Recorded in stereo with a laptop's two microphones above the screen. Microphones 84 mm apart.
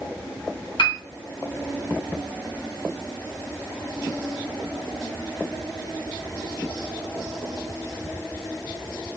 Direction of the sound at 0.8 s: 70° left (ahead or behind).